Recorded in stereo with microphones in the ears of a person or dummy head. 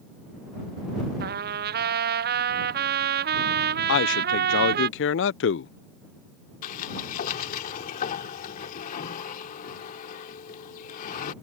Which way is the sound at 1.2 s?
40° right (ahead or behind).